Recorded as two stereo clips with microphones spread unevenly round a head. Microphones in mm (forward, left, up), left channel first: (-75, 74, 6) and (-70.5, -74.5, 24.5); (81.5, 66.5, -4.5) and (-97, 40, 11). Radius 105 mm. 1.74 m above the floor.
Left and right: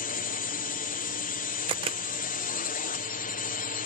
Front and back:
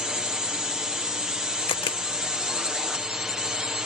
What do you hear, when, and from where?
0.0 s a drone: 100° left
1.7 s a camera shutter: 55° right